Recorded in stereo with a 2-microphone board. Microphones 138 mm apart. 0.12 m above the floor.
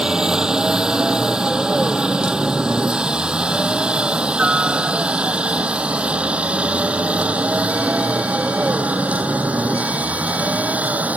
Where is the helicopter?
5° right (ahead or behind); by 11.2 s 10° right (ahead or behind).